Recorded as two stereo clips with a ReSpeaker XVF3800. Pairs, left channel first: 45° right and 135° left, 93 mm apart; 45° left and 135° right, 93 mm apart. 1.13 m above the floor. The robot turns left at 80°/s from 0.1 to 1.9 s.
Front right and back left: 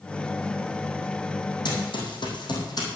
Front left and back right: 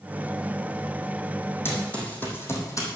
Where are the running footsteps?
15° right, 3.5 m; by 2.9 s 5° right, 3.5 m.